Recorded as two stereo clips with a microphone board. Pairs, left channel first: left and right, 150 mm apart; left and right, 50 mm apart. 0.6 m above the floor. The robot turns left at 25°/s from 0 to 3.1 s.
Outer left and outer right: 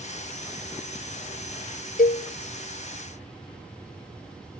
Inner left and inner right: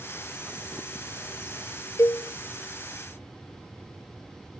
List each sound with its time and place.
2.0 s a cowbell: 80° left, 0.8 m